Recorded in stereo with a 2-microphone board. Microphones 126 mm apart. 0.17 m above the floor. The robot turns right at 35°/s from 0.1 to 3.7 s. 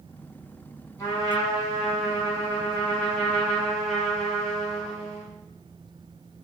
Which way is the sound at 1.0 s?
25° left (ahead or behind).